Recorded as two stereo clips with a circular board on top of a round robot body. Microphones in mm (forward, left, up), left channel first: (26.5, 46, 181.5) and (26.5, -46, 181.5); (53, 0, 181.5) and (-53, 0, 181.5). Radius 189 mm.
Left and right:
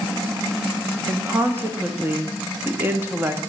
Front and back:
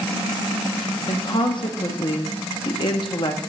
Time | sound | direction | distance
1.1 | a woman speaking | 30° right | 1.4 m